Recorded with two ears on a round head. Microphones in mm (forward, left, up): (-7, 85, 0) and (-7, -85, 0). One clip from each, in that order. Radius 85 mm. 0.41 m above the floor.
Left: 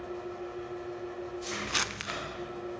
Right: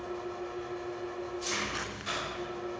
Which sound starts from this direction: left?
Crumpling, at 1.7 s.